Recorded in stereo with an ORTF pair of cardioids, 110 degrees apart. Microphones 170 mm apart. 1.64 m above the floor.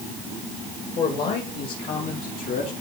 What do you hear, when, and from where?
1.0 s a man speaking: 65° left, 2.5 m; by 2.7 s 55° left, 4 m